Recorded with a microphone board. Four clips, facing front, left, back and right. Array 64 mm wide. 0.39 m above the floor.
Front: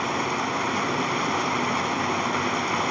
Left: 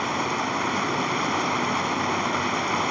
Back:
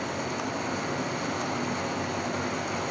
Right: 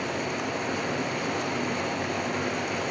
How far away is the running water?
About 2 m.